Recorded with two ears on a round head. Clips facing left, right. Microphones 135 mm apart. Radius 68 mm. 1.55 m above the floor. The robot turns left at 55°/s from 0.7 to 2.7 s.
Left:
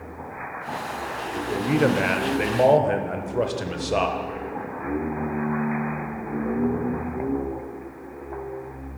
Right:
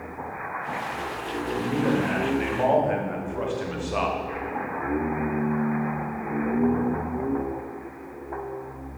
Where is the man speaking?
115° left, 0.8 m; by 4.2 s 45° left, 0.8 m.